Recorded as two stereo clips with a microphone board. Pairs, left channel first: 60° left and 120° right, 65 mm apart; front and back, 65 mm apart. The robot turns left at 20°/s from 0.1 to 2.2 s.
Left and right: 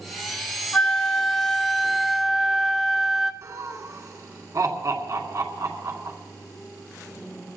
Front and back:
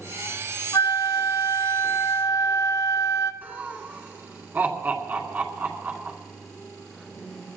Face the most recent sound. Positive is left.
turn(degrees=-125)